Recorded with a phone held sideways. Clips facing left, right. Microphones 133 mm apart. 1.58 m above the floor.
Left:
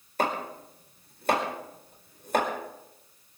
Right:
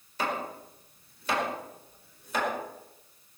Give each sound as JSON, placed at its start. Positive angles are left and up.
{"t": 0.2, "sound": "chopping", "side_deg": 55, "distance_m": 4.5}